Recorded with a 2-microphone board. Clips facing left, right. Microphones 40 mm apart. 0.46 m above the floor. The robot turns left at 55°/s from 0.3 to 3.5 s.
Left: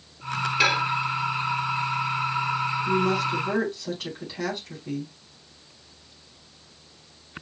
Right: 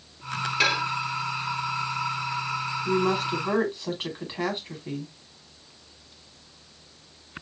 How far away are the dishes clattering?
About 0.9 m.